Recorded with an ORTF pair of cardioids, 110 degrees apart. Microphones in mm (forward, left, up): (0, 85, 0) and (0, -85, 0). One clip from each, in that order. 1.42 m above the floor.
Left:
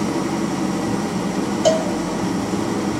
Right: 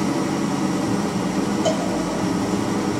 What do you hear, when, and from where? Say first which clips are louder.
0.0 s an engine running: even; straight ahead, 0.9 m
1.6 s a cowbell: left 7 dB; 40° left, 1.2 m